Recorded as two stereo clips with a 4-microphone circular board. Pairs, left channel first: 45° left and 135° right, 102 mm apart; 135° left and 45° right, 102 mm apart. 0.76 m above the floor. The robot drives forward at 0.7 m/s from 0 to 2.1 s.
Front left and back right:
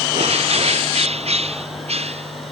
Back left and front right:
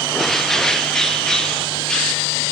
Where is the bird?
140° right.